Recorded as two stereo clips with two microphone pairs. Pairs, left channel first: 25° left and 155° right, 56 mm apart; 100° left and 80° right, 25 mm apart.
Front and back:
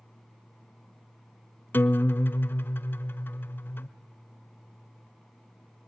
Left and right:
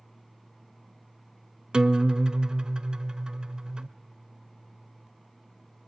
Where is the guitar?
20° right, 0.8 m.